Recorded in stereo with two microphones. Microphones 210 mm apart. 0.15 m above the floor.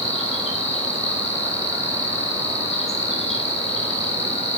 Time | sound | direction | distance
0.0 | an insect | 30° left (ahead or behind) | 4.5 m